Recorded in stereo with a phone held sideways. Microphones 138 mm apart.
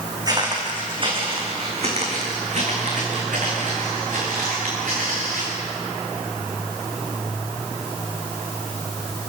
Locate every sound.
0.3 s footsteps: 30° right (ahead or behind), 4.5 m; by 5.5 s 75° right (ahead or behind), 7.5 m